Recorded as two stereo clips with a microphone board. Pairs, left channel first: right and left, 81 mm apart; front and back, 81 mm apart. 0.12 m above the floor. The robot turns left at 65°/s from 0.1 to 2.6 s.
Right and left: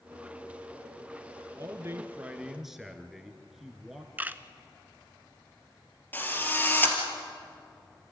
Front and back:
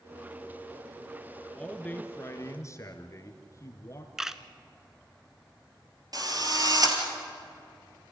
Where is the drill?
155° right, 3 m.